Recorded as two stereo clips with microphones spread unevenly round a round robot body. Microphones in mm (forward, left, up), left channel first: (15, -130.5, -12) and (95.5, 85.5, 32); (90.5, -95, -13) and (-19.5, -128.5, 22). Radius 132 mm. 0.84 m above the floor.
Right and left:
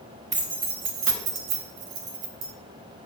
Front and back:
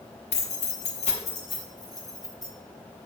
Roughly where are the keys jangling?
Ahead.